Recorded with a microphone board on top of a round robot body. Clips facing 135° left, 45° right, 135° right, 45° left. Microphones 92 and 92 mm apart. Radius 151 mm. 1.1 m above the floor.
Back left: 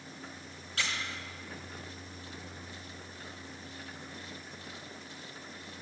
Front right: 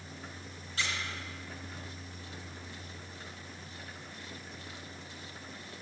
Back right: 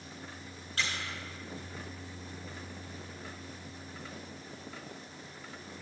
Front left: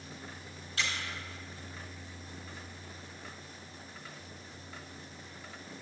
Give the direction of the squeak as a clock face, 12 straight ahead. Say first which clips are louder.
Even, even; 6 o'clock.